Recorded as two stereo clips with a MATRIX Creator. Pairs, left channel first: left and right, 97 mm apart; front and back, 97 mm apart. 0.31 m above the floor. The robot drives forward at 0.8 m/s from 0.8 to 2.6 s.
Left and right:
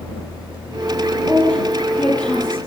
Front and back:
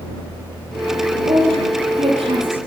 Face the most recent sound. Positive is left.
turn(degrees=170)